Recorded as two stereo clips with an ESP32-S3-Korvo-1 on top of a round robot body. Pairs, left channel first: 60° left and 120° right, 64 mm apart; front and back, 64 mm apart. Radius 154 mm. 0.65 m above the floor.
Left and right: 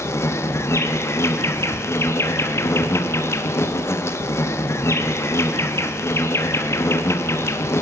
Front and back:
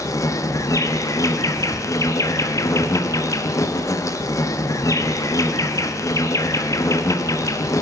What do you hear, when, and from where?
0.0 s an insect: 25° left, 1.1 m